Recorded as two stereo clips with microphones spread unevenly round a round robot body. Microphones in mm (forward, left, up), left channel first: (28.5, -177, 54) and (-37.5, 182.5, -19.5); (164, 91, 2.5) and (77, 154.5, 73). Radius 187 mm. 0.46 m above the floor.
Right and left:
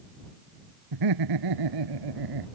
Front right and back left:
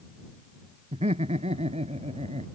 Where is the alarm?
I don't hear an alarm.